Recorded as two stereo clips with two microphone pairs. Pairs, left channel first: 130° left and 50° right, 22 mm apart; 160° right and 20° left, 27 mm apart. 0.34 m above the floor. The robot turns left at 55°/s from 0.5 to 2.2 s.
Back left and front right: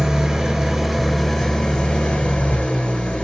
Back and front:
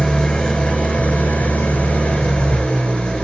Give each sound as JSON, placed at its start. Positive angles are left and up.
{"t": 0.0, "sound": "an engine running", "azimuth_deg": -115, "distance_m": 2.0}